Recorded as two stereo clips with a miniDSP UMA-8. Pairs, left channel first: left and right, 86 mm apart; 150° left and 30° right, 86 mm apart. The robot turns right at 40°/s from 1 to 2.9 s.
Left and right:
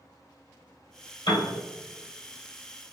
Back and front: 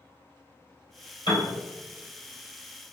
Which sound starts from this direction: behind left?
A piano, at 1.3 s.